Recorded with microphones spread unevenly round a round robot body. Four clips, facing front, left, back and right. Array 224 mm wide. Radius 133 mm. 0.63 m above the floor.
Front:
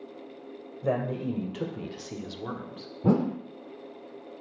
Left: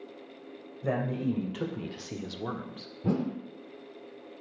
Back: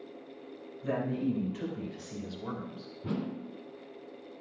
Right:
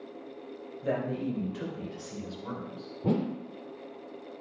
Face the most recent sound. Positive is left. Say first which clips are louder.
# right 1 dB, front 11 dB
turn(degrees=-10)